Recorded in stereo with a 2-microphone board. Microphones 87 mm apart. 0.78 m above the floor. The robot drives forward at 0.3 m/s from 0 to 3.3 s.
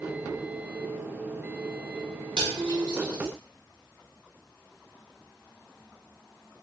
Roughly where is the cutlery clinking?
Right.